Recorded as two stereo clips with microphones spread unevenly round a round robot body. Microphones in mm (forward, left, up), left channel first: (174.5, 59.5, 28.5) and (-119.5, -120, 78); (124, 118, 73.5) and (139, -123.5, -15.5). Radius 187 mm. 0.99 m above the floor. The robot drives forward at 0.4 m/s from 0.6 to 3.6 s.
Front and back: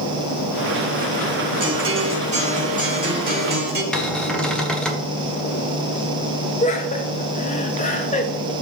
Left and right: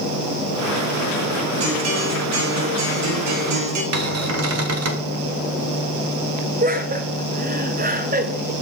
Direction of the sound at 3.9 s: 60° right.